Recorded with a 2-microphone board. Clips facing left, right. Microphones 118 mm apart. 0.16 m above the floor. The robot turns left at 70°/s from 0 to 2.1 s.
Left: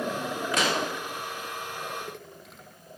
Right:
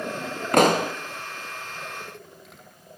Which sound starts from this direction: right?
A pop, at 0.5 s.